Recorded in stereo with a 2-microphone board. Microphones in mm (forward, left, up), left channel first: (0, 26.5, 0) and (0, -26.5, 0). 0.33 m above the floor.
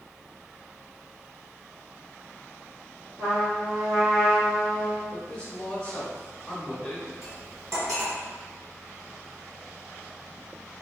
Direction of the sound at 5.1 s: 20° left (ahead or behind).